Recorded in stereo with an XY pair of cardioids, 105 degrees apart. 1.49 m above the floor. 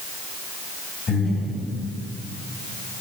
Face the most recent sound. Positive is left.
turn(degrees=40)